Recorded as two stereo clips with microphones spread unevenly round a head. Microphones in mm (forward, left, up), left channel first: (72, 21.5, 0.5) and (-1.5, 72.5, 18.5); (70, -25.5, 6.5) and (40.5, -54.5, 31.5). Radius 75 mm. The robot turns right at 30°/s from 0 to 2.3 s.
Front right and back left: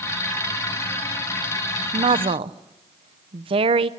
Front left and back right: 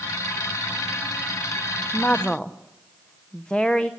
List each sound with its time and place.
1.9 s a woman speaking: 130° left, 0.7 m; by 3.9 s 140° left, 0.7 m